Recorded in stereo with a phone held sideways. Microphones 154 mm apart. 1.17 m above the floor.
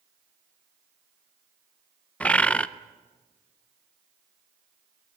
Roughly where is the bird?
Centre.